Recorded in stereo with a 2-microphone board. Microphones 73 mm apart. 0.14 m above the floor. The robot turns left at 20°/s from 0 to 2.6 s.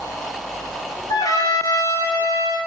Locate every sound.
1.1 s a trumpet: 55° left (ahead or behind), 3 m; by 2.6 s 80° left, 3 m